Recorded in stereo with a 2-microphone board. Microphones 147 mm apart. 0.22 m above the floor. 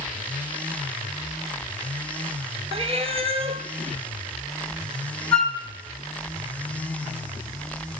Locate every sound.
2.7 s a cat meowing: 45° right (ahead or behind), 0.5 m
5.3 s a flute: 5° left (ahead or behind), 0.8 m